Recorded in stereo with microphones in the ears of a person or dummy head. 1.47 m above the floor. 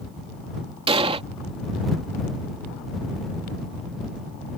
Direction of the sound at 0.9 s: 25° right (ahead or behind).